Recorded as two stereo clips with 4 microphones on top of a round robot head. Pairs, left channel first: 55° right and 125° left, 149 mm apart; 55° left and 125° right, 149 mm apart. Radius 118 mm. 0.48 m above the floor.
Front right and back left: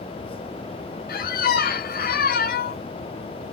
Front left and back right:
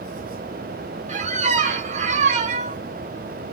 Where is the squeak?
80° right, 2 m.